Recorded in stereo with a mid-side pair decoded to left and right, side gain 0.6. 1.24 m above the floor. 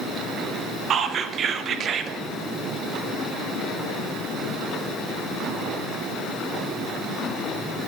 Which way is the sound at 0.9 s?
45° right.